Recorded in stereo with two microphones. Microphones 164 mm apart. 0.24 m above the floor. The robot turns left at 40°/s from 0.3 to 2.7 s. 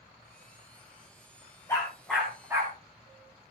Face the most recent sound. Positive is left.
turn(degrees=-20)  # may be behind; listen again after turning